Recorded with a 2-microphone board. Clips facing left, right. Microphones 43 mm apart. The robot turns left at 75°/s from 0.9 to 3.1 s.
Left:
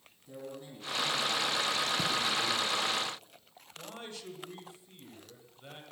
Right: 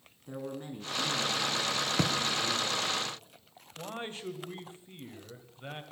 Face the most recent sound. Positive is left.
turn(degrees=-35)  # may be behind; listen again after turning